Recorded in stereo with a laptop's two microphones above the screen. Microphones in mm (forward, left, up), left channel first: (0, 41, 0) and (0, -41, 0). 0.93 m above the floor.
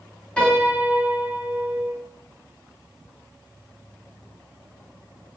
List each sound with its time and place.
0.4 s a piano: 15° left (ahead or behind), 1.4 m